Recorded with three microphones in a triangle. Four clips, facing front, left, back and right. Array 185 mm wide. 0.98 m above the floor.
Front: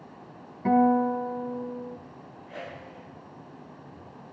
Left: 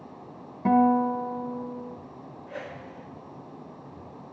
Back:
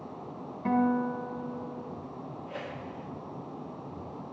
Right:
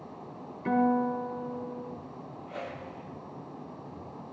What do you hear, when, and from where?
0.7 s a guitar: 80° left, 5 m
2.5 s a whoosh: 135° left, 7 m